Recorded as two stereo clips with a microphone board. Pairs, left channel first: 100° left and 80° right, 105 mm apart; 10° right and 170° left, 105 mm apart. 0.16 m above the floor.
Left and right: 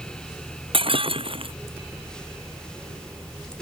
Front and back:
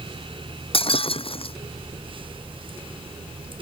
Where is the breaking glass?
45° right.